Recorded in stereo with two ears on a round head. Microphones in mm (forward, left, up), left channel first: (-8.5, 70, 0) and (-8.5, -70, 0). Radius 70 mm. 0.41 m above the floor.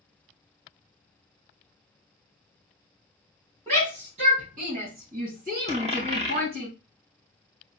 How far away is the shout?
About 2.5 m.